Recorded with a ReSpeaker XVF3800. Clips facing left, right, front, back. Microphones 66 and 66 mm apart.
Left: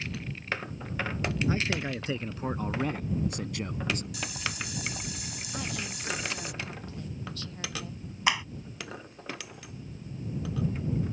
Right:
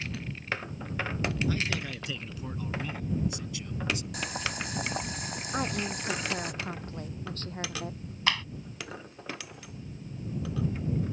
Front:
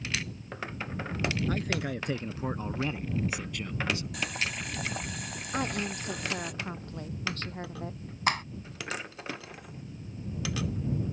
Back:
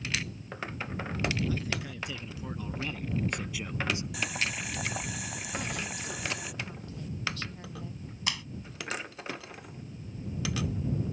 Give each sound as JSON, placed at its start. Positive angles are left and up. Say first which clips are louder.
{"t": 1.5, "sound": "a man speaking", "louder": "left 2 dB, front 3 dB", "azimuth_deg": 30}
{"t": 4.1, "sound": "boiling", "louder": "right 2 dB, even", "azimuth_deg": -95}
{"t": 5.5, "sound": "a woman speaking", "louder": "right 5 dB, front 6 dB", "azimuth_deg": -45}
{"t": 8.3, "sound": "a clap", "louder": "left 2 dB, front 9 dB", "azimuth_deg": 20}